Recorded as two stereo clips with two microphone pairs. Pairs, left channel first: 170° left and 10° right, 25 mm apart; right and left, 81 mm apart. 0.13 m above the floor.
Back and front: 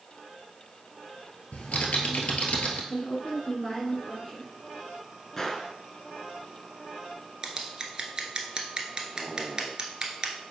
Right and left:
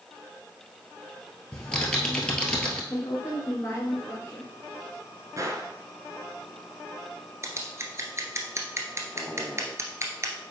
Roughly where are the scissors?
Ahead left.